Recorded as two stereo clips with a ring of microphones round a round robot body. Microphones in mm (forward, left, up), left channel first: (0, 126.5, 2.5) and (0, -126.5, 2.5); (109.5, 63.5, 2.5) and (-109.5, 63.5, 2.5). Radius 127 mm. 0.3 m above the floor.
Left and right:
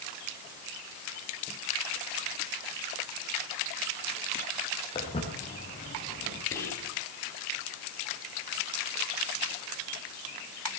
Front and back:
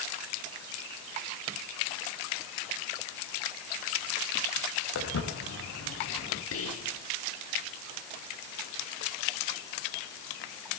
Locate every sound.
5.0 s footsteps: 15° left, 5.5 m; by 6.4 s 25° left, 7.5 m
6.5 s whispering: 10° left, 5 m